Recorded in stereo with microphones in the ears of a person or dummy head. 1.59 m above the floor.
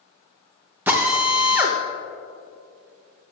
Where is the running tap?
I don't hear a running tap.